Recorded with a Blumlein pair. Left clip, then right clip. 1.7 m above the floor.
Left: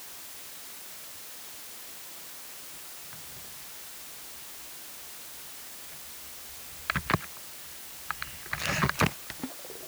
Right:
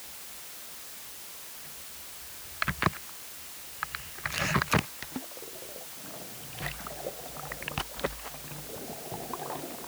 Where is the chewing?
I don't hear chewing.